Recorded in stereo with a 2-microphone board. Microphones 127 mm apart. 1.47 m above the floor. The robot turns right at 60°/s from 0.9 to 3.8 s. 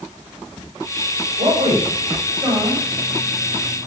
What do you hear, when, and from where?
1.4 s a man speaking: 90° right, 7.5 m; by 2.8 s 5° right (ahead or behind), 7.5 m